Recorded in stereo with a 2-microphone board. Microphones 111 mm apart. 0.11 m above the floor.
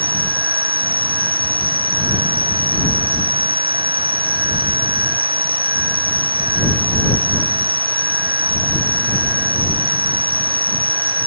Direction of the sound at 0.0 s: 60° right (ahead or behind).